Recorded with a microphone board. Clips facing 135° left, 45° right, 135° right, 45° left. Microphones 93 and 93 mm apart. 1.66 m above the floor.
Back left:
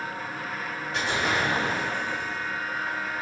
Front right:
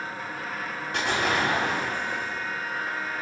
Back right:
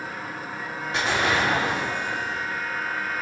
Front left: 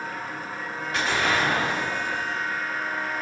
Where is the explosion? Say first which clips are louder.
Front right 1 dB, back right 1 dB; 70° right, 3 m.